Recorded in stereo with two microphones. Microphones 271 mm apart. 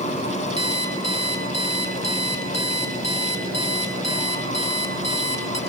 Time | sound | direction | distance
0.6 | an alarm clock | 70° left (ahead or behind) | 2.5 m